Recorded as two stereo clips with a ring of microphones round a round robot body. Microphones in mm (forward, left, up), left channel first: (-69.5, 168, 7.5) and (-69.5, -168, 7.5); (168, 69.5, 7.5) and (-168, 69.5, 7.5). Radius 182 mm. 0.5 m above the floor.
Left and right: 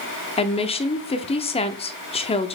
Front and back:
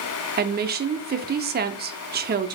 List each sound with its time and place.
0.4 s a woman speaking: 150° left, 0.7 m